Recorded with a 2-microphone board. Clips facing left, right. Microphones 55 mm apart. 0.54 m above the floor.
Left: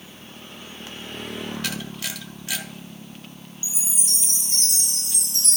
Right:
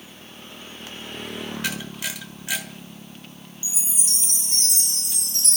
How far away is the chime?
About 3 m.